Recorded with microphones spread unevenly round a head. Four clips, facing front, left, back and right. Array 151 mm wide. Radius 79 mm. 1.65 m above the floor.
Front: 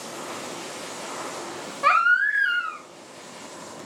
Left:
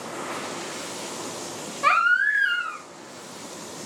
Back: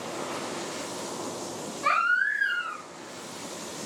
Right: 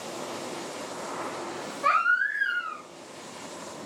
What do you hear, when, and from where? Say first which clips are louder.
1.8 s a baby crying: left 4 dB, front 5 dB; 45° left, 1.1 m